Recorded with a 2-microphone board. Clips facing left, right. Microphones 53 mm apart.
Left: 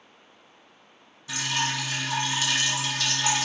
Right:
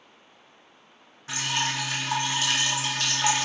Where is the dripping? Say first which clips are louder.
Even; 45° right (ahead or behind), 1.1 m.